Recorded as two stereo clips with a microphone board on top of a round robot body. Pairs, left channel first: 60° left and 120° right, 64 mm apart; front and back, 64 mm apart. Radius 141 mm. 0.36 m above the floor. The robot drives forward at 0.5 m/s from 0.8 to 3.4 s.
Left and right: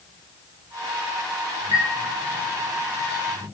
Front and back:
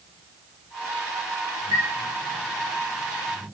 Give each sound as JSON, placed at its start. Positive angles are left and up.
{"t": 1.7, "sound": "a chime", "azimuth_deg": -150, "distance_m": 2.0}